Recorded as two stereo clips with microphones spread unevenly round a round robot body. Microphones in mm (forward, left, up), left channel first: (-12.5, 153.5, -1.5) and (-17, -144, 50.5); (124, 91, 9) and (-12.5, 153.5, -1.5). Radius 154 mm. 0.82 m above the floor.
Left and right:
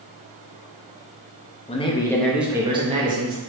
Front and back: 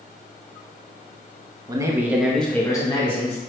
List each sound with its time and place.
1.7 s a man speaking: 120° left, 0.8 m; by 3.4 s 40° right, 0.9 m